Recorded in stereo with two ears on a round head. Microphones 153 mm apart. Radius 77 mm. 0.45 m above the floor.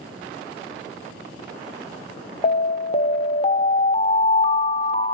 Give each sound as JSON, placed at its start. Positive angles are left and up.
{"t": 2.4, "sound": "an alarm", "side_deg": 35, "distance_m": 0.6}